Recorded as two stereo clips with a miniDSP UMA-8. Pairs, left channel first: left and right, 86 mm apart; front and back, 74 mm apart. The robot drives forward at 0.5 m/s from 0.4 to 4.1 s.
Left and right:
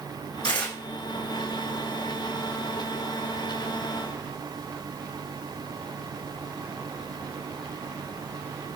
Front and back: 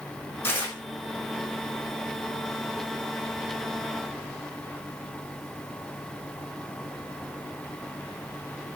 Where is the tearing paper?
60° left, 6.5 m; by 0.8 s 65° left, 6.5 m.